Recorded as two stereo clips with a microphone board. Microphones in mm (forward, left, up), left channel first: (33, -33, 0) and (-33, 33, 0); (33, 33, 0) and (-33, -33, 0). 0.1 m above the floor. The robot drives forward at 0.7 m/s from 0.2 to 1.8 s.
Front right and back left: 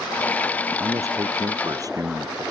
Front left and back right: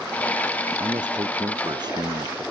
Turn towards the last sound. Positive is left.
turn(degrees=-175)